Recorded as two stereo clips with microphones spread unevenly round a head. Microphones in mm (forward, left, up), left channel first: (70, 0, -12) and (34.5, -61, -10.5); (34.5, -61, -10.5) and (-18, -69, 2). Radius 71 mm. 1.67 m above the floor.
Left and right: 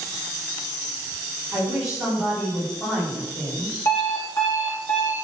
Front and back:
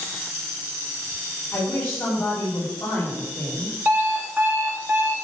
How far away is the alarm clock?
About 2 m.